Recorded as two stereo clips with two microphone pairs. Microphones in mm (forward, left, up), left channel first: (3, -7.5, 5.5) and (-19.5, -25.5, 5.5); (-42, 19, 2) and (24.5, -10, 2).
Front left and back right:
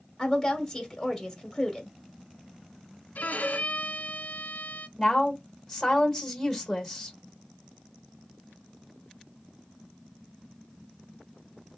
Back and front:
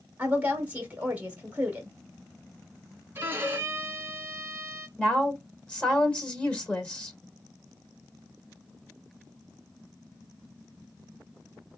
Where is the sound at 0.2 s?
25° right, 1.1 m.